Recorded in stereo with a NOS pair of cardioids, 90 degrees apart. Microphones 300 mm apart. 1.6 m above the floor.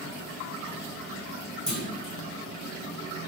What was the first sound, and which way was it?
A clunk, 5° left.